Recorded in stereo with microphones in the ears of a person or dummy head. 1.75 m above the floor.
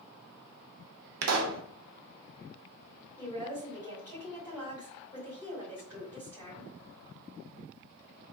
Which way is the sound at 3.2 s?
20° right (ahead or behind).